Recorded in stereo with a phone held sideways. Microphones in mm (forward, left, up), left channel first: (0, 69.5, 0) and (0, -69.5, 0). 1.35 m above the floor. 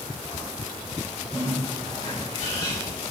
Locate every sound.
1.3 s a bird: 45° left (ahead or behind), 5 m